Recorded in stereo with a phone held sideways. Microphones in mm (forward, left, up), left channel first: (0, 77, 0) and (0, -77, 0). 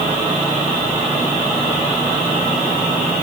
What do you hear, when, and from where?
Only background noise.